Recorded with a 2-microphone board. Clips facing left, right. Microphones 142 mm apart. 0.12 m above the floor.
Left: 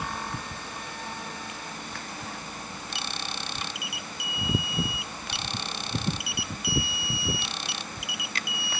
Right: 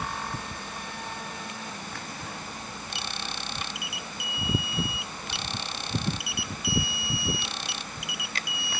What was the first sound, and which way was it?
Only background noise.